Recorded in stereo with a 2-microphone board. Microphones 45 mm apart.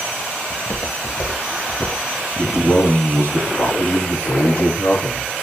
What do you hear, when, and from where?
0.5 s footsteps: 80° left, 2 m; by 2.0 s 85° left, 3.5 m
2.4 s a man speaking: 70° left (ahead or behind), 4 m